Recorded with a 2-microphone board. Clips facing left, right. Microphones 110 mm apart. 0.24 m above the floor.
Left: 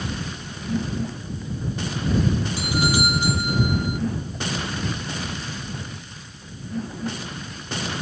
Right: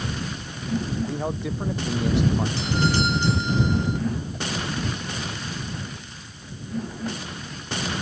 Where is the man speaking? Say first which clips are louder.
Right 6 dB; 75° right (ahead or behind).